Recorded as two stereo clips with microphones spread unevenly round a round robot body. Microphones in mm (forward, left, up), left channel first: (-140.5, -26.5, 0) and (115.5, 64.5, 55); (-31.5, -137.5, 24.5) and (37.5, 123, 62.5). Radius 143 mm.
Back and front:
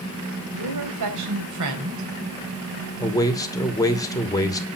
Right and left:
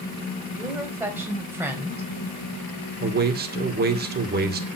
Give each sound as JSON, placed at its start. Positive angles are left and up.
{"t": 0.5, "sound": "a woman speaking", "azimuth_deg": -10, "distance_m": 4.0}
{"t": 3.0, "sound": "a man speaking", "azimuth_deg": 130, "distance_m": 2.5}